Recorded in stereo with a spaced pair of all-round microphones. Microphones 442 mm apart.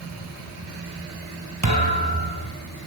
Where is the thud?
40° right (ahead or behind), 2.5 m.